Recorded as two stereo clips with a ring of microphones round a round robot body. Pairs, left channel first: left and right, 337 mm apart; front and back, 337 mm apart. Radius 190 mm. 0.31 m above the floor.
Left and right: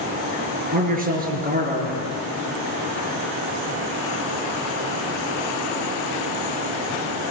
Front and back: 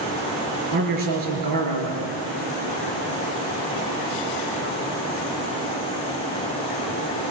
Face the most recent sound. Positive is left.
turn(degrees=-155)